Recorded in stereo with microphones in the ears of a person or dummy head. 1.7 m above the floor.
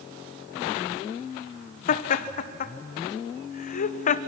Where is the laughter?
40° left (ahead or behind), 1.1 m.